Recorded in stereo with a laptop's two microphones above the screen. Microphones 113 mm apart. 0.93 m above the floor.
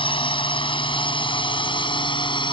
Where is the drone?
45° left (ahead or behind); by 2.5 s 40° left (ahead or behind).